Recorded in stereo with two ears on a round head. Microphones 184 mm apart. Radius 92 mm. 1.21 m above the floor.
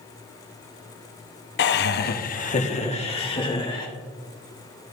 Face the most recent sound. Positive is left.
turn(degrees=25)  # may be behind; listen again after turning